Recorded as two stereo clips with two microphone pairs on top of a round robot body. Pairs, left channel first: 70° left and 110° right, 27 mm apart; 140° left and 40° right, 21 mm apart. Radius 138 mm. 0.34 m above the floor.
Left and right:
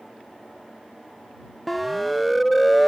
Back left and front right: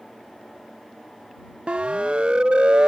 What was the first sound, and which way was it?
A siren, 15° right.